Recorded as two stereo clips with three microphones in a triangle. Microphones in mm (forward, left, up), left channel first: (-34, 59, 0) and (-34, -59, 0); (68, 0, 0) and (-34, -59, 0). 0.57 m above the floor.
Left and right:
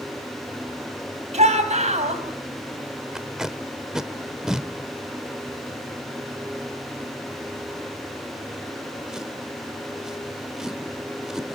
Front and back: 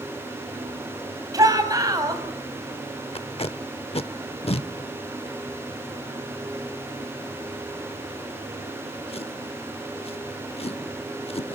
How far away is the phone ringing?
No phone ringing in this recording.